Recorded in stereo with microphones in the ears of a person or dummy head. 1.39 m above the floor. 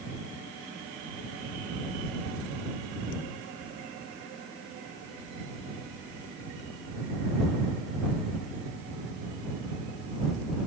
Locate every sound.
Only background noise.